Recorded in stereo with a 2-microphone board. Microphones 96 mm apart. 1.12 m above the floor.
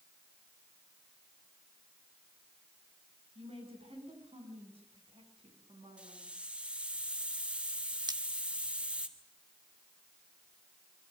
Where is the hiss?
10° right (ahead or behind), 2.5 m.